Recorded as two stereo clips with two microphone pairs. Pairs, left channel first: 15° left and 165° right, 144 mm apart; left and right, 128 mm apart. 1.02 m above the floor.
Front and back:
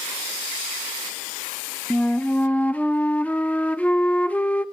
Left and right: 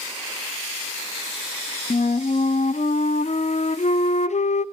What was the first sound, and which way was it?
A flute, 95° left.